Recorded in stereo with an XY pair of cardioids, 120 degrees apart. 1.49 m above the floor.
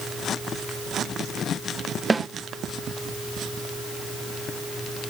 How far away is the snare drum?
About 1.0 m.